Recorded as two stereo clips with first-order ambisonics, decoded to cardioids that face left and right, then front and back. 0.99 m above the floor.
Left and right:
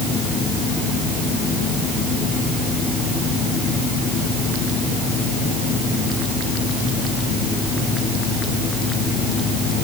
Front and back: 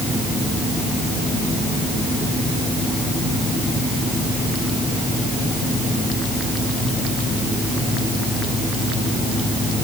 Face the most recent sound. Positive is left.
No sound to turn to.